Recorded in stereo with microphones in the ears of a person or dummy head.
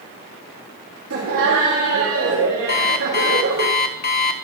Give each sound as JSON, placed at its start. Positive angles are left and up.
{"t": 1.1, "sound": "laughter", "side_deg": -75, "distance_m": 2.5}
{"t": 2.7, "sound": "an alarm clock", "side_deg": 50, "distance_m": 1.0}